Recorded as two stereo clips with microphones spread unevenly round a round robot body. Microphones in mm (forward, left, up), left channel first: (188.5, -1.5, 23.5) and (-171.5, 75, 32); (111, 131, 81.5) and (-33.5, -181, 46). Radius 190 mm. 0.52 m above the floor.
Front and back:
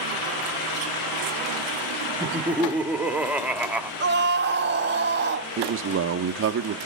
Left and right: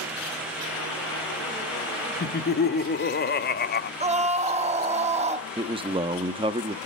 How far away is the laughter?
About 1.0 m.